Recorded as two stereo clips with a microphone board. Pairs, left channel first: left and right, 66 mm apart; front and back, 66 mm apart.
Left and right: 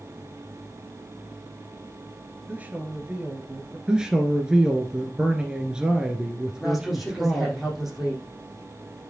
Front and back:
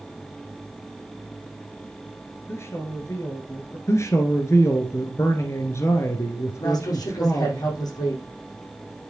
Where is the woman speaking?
Straight ahead, 5.5 m.